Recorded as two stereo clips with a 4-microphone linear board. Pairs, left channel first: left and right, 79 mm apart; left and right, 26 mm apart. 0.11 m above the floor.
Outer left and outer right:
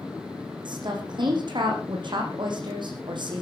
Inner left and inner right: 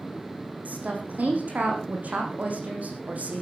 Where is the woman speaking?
75° right (ahead or behind), 5.5 m.